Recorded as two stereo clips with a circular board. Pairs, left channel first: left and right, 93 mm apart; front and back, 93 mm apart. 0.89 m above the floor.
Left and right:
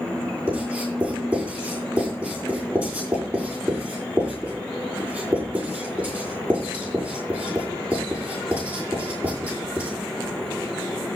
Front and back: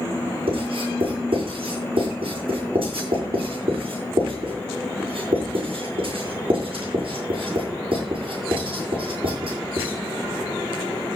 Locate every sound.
0.5 s writing: 165° right, 8.5 m